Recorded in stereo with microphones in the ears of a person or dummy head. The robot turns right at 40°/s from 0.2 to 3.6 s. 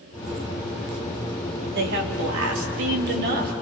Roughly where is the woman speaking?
Behind right.